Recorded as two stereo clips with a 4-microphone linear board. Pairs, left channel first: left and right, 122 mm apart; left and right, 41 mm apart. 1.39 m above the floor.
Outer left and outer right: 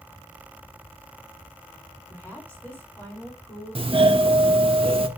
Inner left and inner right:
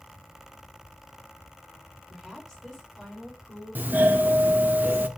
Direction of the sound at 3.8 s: 50° right (ahead or behind).